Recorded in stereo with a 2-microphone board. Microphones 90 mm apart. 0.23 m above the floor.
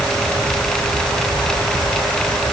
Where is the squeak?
No squeak in this recording.